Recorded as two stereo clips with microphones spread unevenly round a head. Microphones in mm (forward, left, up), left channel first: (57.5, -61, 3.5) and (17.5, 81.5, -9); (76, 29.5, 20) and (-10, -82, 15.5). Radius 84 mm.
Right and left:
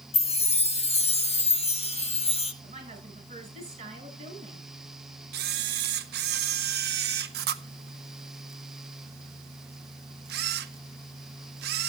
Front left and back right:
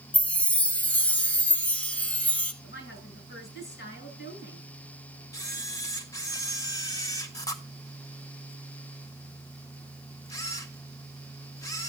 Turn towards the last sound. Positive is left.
turn(degrees=125)